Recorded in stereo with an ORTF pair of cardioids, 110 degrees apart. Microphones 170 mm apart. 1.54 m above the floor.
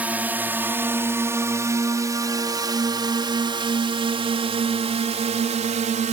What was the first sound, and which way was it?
A drone, 10° right.